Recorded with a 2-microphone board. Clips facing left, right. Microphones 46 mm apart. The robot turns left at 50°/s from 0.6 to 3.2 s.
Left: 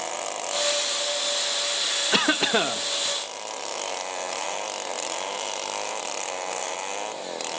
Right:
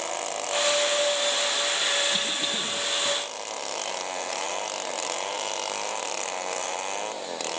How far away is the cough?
About 1.3 m.